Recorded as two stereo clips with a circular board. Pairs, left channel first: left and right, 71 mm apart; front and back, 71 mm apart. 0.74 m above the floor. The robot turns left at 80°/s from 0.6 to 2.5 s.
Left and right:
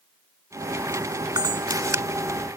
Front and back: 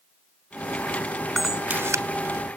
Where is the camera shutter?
90° right; by 2.0 s 145° right.